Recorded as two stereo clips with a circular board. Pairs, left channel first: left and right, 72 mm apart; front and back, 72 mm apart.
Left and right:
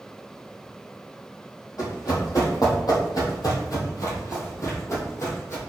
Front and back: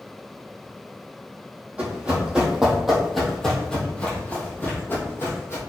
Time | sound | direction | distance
1.8 | running footsteps | 110° left | 2 m